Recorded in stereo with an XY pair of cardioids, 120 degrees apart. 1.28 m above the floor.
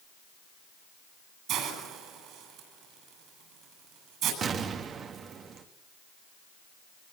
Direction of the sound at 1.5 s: 65° right.